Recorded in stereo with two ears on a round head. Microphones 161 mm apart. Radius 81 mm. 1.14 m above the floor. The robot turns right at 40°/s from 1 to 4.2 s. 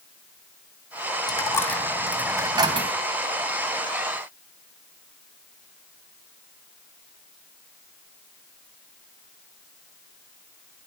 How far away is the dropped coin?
About 2 m.